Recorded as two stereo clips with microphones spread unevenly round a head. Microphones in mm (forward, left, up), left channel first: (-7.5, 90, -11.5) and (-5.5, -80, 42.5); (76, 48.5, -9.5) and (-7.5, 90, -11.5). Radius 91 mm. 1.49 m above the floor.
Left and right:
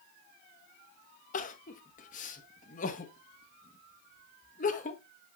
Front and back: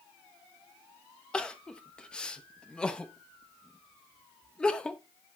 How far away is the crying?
About 1.1 m.